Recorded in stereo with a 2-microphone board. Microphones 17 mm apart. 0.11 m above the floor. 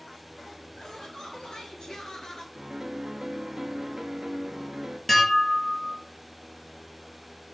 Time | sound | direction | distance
0.8 | laughter | 50° left (ahead or behind) | 1.9 m
2.5 | a piano | 40° right (ahead or behind) | 0.6 m
5.1 | dishes clattering | 10° left (ahead or behind) | 1.3 m